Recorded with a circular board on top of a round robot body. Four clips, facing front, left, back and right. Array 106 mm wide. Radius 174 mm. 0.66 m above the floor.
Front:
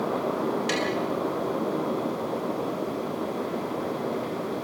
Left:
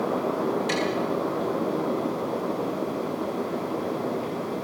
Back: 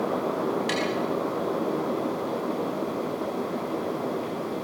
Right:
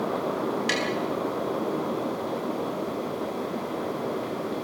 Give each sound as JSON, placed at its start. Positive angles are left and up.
{"t": 0.7, "sound": "tapping", "azimuth_deg": -95, "distance_m": 6.5}